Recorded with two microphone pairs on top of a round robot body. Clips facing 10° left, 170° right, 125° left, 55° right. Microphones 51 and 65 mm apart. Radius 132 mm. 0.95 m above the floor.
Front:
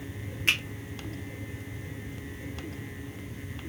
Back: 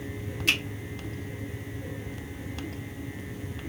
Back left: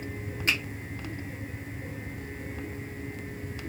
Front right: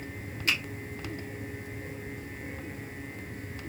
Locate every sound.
0.5 s a finger snap: 65° left, 1.5 m